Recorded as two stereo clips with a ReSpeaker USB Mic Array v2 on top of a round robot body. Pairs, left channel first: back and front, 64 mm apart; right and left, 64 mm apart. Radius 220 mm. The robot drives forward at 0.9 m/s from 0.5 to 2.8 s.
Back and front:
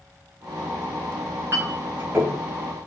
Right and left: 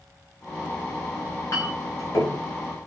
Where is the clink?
50° right, 6.5 m; by 2.4 s 60° right, 6 m.